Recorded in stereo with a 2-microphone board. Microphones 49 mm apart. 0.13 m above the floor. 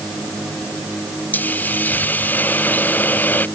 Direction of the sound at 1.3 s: 40° left (ahead or behind).